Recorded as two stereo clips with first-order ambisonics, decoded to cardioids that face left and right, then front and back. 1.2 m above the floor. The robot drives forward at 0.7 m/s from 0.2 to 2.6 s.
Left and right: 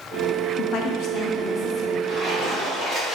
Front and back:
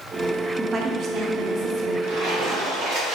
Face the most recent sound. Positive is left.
turn(degrees=-175)